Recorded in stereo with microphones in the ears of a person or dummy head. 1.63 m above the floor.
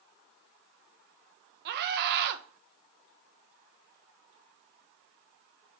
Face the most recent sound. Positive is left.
turn(degrees=-55)  # may be behind; listen again after turning